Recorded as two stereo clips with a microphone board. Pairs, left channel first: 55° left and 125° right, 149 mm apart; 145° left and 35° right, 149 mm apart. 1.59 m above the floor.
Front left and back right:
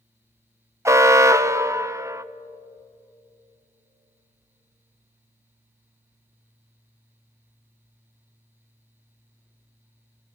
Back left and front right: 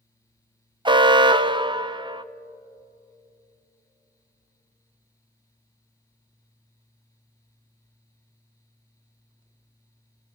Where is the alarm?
65° right, 0.6 m.